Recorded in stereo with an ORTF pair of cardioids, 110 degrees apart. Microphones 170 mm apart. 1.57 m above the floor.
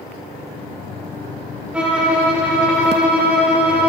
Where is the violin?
5° right, 1.4 m.